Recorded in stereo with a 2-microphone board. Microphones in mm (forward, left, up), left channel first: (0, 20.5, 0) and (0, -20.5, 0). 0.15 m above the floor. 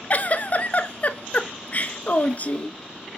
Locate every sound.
0.1 s a giggle: 40° left (ahead or behind), 0.6 m